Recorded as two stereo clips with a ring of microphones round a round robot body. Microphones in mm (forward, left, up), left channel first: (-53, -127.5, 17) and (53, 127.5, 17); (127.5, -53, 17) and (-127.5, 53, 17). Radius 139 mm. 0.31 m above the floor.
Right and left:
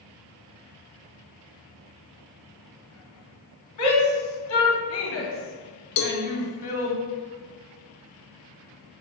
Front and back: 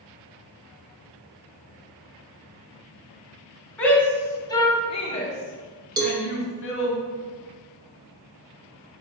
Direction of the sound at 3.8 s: 105° right.